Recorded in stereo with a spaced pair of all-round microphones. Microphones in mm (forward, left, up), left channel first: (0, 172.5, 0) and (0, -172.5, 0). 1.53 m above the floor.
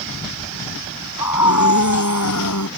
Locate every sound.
1.2 s a scream: 55° left (ahead or behind)